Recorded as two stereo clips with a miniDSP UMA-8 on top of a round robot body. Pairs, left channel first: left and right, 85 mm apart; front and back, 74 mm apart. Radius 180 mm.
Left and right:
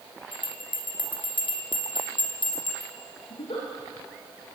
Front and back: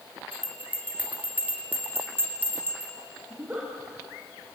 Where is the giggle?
105° left, 9 m.